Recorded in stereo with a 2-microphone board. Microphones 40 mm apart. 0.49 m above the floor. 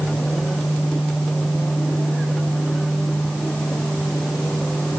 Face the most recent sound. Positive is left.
No sound to turn to.